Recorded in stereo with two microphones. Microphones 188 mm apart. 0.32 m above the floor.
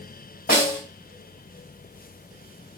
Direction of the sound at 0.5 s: 50° left (ahead or behind).